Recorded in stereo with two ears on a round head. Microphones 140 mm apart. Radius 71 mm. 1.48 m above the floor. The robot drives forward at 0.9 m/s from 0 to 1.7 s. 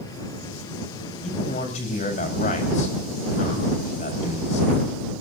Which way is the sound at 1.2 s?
45° left (ahead or behind).